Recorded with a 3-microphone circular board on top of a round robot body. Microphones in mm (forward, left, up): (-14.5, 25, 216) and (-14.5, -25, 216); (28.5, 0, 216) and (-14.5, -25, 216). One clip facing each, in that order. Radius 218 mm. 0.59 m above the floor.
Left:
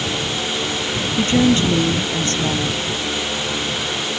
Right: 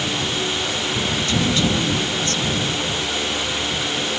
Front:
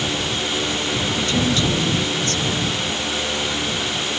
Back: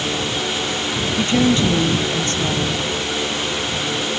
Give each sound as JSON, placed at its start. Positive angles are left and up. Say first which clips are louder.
{"t": 1.2, "sound": "a woman speaking", "louder": "left 7 dB, back 6 dB", "azimuth_deg": 150}